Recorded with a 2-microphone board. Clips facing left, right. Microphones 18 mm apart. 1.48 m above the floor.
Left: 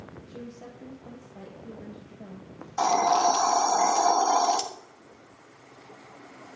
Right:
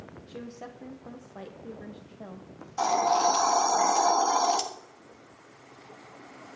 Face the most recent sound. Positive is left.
turn(degrees=25)  # may be behind; listen again after turning